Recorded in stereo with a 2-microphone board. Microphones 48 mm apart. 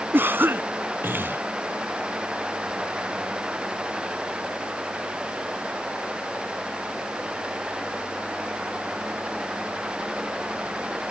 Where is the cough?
45° right (ahead or behind).